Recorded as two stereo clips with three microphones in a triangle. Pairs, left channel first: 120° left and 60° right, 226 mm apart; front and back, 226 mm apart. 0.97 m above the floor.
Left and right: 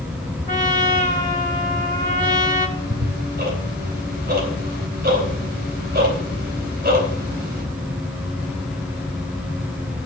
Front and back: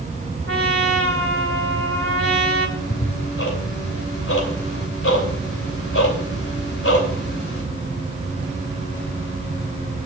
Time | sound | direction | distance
0.5 | a trumpet | 175° left | 2 m
2.8 | ticking | 15° right | 3 m